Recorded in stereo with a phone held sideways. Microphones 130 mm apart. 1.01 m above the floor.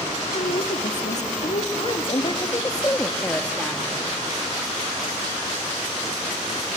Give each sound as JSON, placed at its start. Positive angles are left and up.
{"t": 0.3, "sound": "a woman speaking", "side_deg": 75, "distance_m": 1.8}